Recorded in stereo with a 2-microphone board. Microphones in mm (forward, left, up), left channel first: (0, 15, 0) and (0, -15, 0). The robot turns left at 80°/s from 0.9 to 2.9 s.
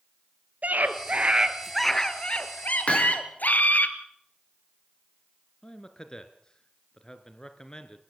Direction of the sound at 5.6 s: 25° left (ahead or behind).